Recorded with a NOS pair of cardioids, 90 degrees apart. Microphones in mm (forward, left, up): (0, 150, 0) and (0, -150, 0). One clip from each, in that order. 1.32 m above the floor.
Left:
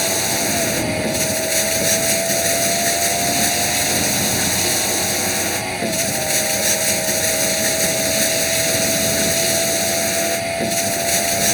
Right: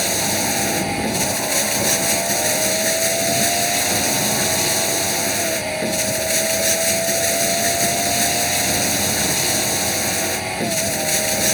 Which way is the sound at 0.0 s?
5° left.